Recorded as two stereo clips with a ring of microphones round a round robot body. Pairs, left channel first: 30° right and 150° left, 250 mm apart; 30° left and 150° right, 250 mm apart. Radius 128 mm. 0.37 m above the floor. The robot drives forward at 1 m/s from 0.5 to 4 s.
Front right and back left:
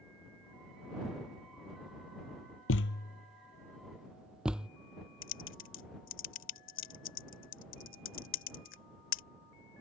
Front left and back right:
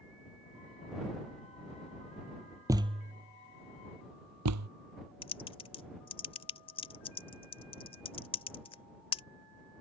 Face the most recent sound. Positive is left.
turn(degrees=-30)